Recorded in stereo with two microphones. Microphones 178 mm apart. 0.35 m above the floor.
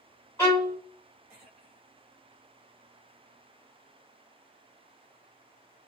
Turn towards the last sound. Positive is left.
turn(degrees=15)  # may be behind; listen again after turning